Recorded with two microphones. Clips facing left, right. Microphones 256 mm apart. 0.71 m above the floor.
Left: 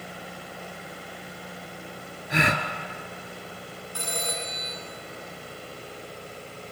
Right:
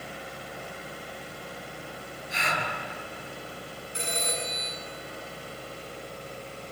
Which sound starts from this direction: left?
A gasp, at 2.3 s.